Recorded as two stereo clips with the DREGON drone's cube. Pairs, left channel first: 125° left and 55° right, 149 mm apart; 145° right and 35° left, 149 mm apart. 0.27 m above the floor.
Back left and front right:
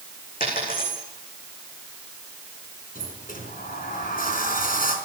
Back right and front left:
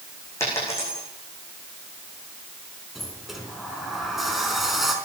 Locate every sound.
0.4 s a dropped coin: 145° left, 9 m
3.0 s a sliding door: 125° left, 4 m